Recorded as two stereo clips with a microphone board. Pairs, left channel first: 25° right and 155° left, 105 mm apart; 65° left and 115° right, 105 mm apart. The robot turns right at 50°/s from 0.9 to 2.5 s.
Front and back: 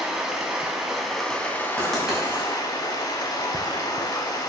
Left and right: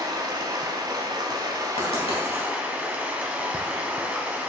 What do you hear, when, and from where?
0.0 s running water: 120° right, 0.8 m; by 4.5 s 40° right, 0.8 m
1.8 s writing: 55° left, 2 m; by 2.5 s 90° left, 2 m